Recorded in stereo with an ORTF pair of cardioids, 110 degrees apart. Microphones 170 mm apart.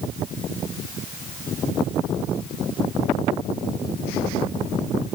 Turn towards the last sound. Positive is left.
No sound to turn to.